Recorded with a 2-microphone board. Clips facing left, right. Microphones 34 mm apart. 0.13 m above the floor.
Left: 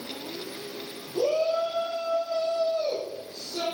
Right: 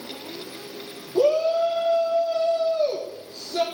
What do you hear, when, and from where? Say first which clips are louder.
1.1 s a shout: right 5 dB; 45° right (ahead or behind), 4.5 m